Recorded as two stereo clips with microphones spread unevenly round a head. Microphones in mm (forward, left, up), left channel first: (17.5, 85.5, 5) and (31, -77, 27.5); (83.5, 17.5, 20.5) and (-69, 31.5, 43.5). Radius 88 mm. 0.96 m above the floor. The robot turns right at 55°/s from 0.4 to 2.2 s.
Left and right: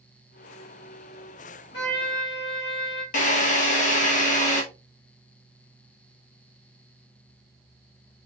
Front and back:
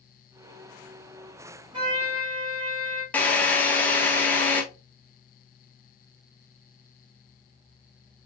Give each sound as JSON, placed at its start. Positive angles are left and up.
{"t": 1.7, "sound": "a trumpet", "azimuth_deg": 115, "distance_m": 1.9}
{"t": 3.1, "sound": "a drill", "azimuth_deg": 70, "distance_m": 1.2}